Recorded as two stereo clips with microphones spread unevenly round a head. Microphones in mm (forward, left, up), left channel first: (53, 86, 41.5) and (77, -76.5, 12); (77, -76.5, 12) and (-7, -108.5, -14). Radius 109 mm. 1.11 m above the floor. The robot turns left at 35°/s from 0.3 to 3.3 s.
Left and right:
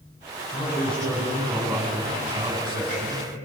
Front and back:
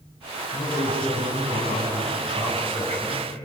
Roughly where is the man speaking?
Ahead left.